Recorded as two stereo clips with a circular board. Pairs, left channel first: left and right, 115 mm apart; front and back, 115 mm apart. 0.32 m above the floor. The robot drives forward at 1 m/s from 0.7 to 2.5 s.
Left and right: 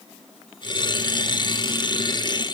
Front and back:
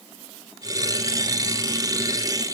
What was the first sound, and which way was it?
Only background noise.